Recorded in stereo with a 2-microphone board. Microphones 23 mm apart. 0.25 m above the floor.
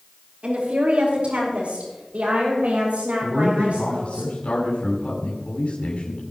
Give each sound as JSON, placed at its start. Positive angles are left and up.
{"t": 0.4, "sound": "a woman speaking", "side_deg": -60, "distance_m": 4.5}
{"t": 3.2, "sound": "a man speaking", "side_deg": 65, "distance_m": 3.0}